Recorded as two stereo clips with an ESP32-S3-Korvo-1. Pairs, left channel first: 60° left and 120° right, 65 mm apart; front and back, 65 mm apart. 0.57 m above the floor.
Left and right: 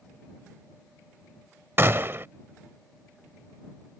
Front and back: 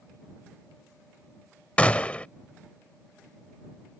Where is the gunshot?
70° right.